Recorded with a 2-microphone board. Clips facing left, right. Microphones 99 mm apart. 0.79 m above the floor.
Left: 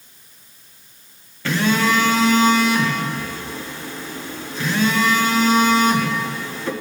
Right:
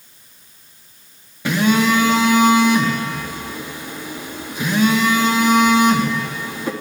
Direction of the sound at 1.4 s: 15° right (ahead or behind).